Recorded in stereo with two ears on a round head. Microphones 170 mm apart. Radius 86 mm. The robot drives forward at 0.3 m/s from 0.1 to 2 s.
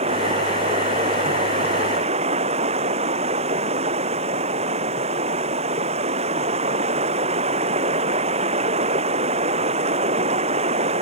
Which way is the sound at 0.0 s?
30° right (ahead or behind).